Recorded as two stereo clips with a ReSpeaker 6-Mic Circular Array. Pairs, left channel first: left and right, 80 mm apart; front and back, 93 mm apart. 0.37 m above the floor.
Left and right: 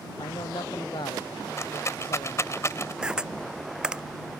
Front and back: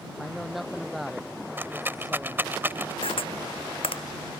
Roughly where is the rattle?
Behind left.